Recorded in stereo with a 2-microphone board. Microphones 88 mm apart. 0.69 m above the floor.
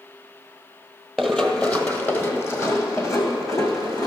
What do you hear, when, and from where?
1.2 s running footsteps: centre (ahead or behind), 1.0 m; by 4.1 s 40° left (ahead or behind), 2.5 m